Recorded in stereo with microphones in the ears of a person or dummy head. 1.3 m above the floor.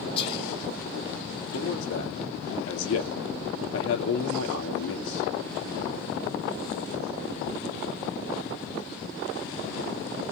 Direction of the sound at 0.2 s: 30° left (ahead or behind).